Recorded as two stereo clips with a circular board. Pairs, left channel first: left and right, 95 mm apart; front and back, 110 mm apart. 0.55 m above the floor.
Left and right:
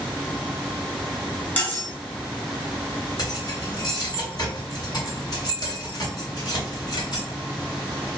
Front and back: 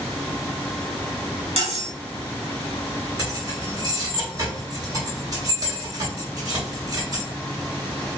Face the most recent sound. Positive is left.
turn(degrees=130)